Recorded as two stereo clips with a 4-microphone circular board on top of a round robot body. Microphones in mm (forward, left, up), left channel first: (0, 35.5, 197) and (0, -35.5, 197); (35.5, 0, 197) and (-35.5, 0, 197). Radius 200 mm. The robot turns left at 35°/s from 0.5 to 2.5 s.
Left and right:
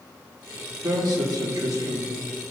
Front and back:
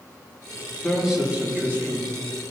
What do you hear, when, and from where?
0.8 s a man speaking: 95° right, 1.8 m; by 2.1 s 140° right, 1.8 m